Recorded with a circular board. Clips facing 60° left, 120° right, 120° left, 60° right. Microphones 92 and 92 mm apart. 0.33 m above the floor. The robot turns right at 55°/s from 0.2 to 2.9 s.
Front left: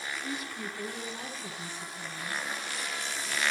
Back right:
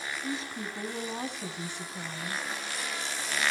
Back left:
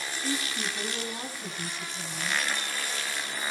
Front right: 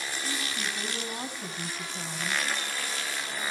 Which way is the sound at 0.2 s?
170° left.